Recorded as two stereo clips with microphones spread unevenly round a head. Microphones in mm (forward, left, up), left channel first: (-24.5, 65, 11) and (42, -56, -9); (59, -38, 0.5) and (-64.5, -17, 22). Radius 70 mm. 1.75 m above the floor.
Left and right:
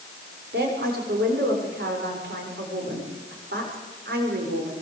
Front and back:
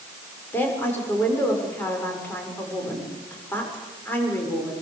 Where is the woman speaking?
85° right, 7 m.